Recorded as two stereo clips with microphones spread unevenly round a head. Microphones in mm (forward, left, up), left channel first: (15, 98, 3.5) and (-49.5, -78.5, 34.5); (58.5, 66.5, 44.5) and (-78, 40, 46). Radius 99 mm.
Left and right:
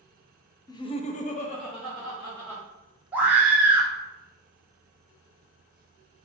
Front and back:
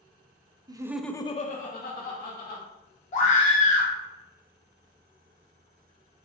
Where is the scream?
25° right, 1.1 m.